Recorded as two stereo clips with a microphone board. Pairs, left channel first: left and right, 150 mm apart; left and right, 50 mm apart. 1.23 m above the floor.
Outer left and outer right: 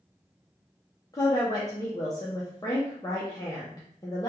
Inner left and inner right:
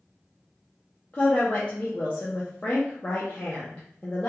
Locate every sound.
1.1 s a woman speaking: 25° left (ahead or behind), 0.7 m